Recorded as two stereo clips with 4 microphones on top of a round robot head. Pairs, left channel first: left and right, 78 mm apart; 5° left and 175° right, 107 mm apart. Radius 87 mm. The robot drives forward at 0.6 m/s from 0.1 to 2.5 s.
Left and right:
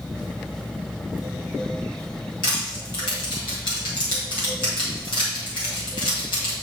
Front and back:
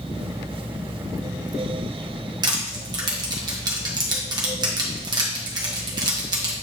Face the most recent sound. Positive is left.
turn(degrees=135)